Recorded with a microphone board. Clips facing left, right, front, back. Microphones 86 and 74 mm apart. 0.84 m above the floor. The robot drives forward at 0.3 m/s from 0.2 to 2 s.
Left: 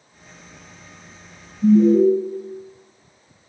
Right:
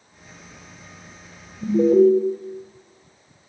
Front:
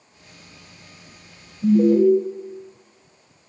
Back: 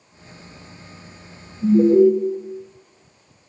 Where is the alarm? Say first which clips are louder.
Left 1 dB, back 2 dB; 100° right, 1.5 m; by 2.1 s 105° right, 1.6 m.